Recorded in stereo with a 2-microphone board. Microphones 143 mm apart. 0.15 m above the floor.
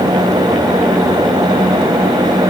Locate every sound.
Only background noise.